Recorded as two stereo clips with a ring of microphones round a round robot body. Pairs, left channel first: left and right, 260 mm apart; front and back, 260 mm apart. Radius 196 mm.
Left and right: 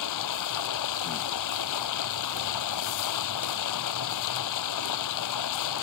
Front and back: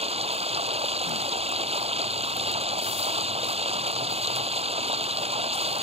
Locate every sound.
0.0 s running water: 110° left